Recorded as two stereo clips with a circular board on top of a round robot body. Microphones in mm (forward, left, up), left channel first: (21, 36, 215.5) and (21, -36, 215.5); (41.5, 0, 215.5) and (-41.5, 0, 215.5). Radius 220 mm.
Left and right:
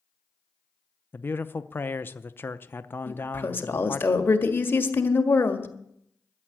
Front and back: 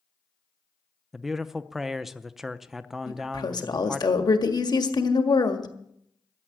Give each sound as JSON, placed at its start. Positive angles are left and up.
{"t": 1.1, "sound": "a man speaking", "azimuth_deg": 100, "distance_m": 0.8}
{"t": 3.1, "sound": "a woman speaking", "azimuth_deg": 30, "distance_m": 1.9}